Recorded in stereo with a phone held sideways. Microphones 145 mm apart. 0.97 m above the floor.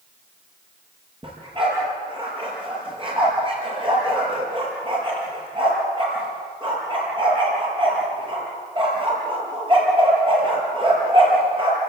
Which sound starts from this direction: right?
A dog barking, at 1.2 s.